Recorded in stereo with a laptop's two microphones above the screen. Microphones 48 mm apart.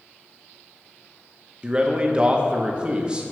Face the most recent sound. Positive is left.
turn(degrees=-20)  # may be behind; listen again after turning